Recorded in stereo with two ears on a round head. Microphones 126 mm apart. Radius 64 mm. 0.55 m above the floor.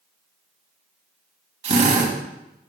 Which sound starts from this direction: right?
A drill, at 1.6 s.